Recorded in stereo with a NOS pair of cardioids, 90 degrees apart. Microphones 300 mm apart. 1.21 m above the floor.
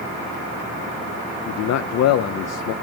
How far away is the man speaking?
About 0.6 m.